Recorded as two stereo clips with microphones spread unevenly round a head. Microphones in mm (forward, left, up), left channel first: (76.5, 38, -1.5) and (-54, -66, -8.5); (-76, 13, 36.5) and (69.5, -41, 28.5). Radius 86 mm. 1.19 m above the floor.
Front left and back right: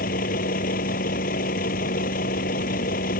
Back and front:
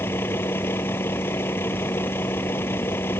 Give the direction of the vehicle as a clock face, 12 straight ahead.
9 o'clock.